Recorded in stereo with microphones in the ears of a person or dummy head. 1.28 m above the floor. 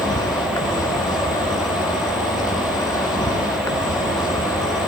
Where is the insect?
20° left (ahead or behind), 2 m.